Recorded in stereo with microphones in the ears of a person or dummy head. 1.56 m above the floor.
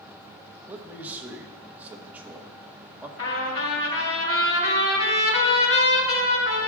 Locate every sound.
0.7 s a man speaking: 10° right (ahead or behind), 1.0 m
3.2 s a trumpet: 80° left, 4 m